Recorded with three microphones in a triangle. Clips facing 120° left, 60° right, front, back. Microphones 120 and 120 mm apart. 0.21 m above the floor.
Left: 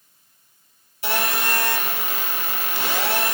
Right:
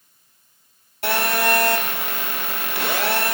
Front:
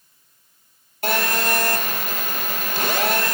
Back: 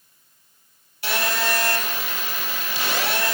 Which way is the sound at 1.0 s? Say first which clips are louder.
Right 4 dB, front 3 dB; 35° right.